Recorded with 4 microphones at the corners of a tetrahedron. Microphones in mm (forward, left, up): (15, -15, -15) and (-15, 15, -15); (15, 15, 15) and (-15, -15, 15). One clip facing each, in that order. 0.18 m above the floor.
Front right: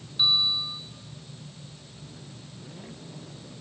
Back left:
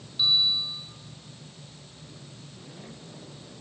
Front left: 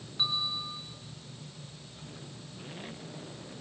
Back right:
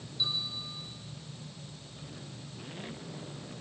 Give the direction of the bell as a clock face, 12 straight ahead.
11 o'clock.